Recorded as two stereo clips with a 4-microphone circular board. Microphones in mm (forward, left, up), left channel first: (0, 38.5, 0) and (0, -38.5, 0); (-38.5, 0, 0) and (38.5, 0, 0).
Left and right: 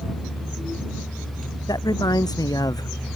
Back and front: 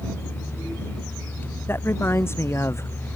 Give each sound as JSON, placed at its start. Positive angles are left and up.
{"t": 1.7, "sound": "a man speaking", "azimuth_deg": 120}